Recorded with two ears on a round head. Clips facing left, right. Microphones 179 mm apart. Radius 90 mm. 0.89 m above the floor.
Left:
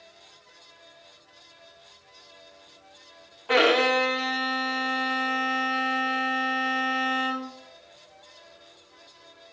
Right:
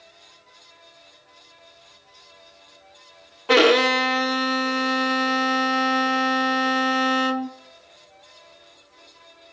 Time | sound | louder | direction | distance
3.5 | a violin | right 4 dB | 55° right (ahead or behind) | 0.9 m